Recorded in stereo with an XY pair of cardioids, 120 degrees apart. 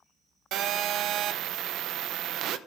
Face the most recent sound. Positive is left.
turn(degrees=-70)